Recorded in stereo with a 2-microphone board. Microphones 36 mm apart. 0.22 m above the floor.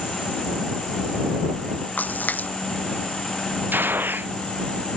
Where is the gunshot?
70° right (ahead or behind).